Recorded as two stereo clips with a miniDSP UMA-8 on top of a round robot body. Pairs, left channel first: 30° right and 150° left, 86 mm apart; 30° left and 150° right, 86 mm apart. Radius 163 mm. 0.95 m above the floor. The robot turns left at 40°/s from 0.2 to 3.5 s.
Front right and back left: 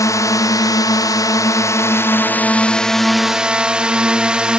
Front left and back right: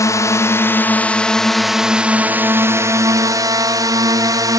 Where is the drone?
5° right; by 4.6 s 135° right.